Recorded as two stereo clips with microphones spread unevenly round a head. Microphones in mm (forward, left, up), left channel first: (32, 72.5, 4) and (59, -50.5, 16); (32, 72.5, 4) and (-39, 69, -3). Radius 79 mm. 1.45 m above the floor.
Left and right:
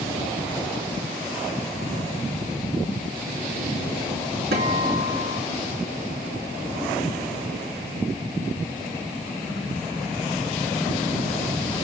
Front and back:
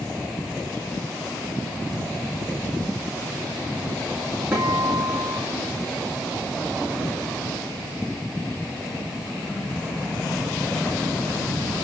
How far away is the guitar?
About 3.5 m.